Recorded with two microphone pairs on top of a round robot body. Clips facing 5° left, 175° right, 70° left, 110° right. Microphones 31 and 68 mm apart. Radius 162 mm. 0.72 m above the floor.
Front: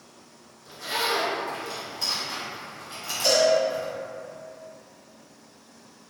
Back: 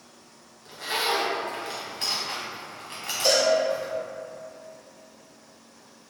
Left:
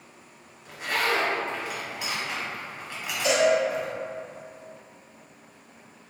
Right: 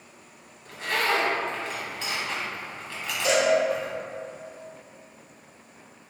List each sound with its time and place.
0.7 s a zipper: 145° left, 1.3 m
3.2 s a cowbell: 105° left, 1.9 m